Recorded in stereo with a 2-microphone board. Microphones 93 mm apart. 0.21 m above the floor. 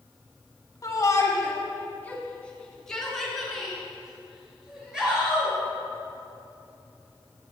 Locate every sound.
0.8 s a shout: 40° left (ahead or behind), 1.4 m; by 5.5 s 10° right (ahead or behind), 3.5 m